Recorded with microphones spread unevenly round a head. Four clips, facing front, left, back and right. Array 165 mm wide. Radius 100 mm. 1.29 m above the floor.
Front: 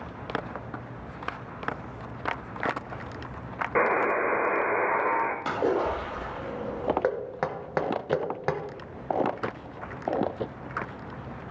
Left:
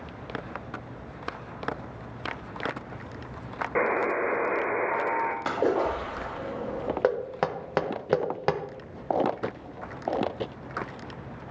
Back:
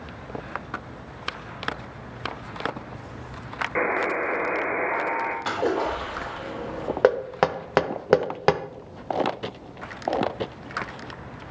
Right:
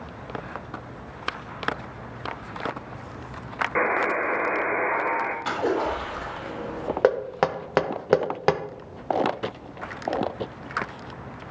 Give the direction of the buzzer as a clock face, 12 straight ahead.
10 o'clock.